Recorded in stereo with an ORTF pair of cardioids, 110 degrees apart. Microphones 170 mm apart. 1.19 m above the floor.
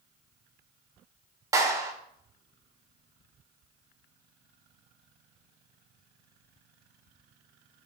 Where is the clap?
20° right, 3 m.